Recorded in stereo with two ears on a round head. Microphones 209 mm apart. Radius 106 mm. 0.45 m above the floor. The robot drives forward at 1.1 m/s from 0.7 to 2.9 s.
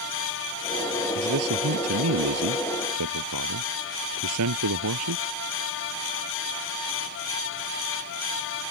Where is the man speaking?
60° right (ahead or behind); by 5.2 s 70° right (ahead or behind).